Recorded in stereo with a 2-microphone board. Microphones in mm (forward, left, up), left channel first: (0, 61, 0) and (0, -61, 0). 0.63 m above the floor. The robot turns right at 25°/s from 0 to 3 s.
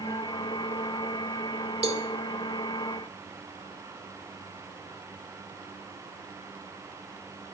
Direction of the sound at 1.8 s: 55° right (ahead or behind).